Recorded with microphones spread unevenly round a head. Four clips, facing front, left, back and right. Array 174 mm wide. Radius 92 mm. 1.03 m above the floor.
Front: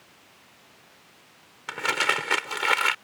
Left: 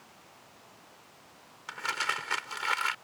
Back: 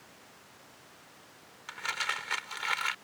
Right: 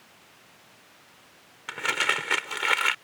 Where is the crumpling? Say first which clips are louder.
Right 5 dB, front 10 dB; 30° right.